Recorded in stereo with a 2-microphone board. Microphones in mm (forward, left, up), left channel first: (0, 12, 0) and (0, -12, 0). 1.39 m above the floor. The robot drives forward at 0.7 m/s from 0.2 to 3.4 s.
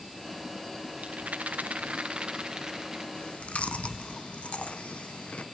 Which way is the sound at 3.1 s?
50° left (ahead or behind).